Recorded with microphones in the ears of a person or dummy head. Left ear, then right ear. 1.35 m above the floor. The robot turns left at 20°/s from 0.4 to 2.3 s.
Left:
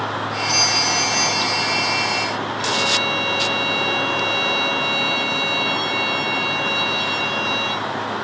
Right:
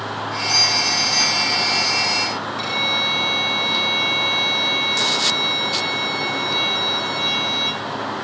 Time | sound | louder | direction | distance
0.5 | a doorbell | right 1 dB | 5° left | 2.5 m
2.6 | a violin | left 1 dB | 70° right (ahead or behind) | 7 m